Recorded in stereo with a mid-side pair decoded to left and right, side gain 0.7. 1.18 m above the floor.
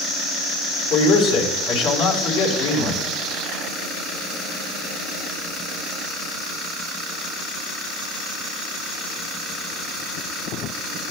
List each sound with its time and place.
0.9 s a man speaking: 70° left, 4 m